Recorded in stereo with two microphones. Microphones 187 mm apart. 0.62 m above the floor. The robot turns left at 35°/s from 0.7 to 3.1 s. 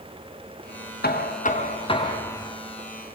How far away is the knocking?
About 4 m.